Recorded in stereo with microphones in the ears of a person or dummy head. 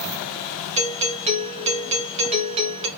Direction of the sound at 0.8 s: 30° right (ahead or behind).